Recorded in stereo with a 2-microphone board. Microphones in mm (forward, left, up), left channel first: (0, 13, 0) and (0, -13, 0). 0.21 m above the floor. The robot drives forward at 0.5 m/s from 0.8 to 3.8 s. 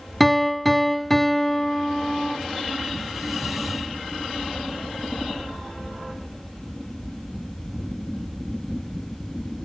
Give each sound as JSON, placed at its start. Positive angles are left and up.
{"t": 0.2, "sound": "a piano", "side_deg": 5, "distance_m": 0.7}